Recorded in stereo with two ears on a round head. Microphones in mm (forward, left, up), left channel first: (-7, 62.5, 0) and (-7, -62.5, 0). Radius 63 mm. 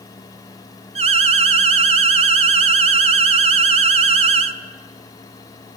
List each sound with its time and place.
0.9 s an alarm: 45° right (ahead or behind), 0.9 m